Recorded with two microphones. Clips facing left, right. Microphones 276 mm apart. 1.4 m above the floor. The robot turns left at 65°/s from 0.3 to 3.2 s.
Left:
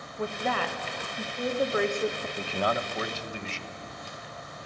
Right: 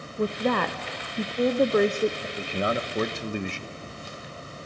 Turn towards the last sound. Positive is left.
turn(degrees=-60)